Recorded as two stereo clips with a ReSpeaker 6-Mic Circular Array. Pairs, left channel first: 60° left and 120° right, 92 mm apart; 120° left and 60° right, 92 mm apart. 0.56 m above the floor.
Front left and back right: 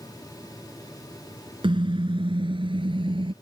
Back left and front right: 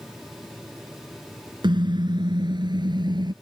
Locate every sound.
1.6 s a car horn: 95° right